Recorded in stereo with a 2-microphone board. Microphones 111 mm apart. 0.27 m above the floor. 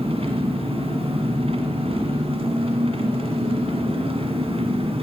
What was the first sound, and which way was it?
An engine running, 65° right (ahead or behind).